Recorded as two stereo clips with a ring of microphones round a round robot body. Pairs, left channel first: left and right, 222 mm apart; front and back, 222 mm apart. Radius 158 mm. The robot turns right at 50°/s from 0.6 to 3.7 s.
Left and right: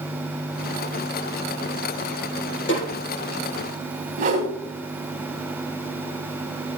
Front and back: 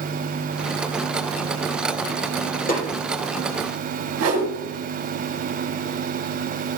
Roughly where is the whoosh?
Behind right.